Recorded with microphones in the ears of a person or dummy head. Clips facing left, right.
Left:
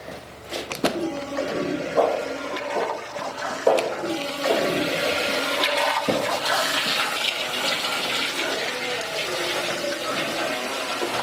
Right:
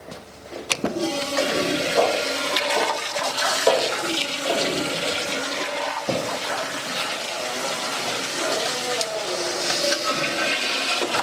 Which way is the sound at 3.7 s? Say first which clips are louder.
Left 1 dB; 20° left (ahead or behind).